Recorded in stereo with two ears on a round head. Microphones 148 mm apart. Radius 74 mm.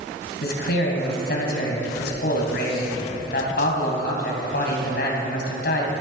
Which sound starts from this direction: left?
A man speaking, at 0.4 s.